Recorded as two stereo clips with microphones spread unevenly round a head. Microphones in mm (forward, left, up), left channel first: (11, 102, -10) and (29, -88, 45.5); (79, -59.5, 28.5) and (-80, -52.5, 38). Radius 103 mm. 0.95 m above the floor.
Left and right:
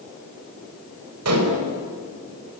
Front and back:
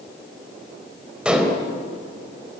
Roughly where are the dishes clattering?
Right.